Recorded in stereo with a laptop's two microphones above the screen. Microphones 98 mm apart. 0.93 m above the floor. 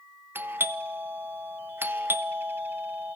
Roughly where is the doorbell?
Right.